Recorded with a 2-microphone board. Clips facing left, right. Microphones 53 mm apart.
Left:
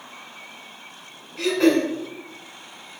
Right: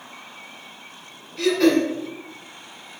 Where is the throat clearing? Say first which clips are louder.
Right 1 dB; 20° left (ahead or behind), 1.5 m.